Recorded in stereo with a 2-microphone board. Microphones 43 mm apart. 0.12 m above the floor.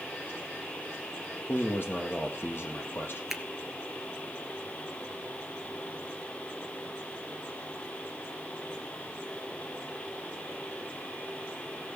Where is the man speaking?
55° left (ahead or behind), 4.5 m.